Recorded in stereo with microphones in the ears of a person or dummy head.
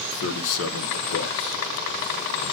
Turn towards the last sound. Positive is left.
turn(degrees=45)  # may be behind; listen again after turning